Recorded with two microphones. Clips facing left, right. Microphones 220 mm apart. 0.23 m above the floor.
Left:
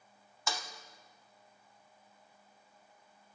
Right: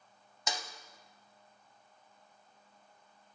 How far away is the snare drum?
About 0.6 m.